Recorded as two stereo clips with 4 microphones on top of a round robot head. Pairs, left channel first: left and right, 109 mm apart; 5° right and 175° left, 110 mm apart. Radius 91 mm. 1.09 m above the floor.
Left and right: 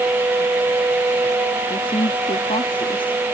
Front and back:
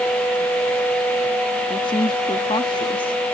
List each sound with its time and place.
1.7 s a woman speaking: 40° left